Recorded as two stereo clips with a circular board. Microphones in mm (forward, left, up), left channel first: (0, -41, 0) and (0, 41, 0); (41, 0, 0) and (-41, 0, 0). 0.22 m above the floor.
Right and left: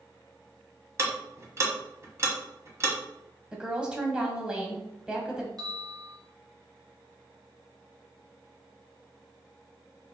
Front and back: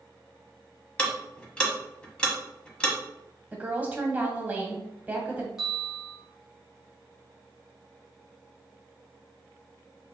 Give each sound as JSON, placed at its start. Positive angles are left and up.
{"t": 1.0, "sound": "ticking", "azimuth_deg": 70, "distance_m": 1.2}
{"t": 3.5, "sound": "a woman speaking", "azimuth_deg": 150, "distance_m": 1.0}
{"t": 5.6, "sound": "a bell", "azimuth_deg": 100, "distance_m": 1.8}